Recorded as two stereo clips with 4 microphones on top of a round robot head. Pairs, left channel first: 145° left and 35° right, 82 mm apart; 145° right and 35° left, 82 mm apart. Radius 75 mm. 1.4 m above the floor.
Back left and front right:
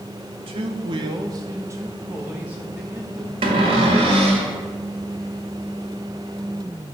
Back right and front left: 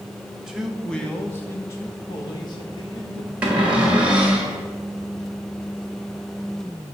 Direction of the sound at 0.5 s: 50° right.